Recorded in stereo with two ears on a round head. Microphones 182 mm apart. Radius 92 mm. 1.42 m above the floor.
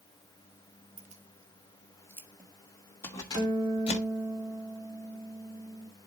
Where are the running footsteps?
No running footsteps in this recording.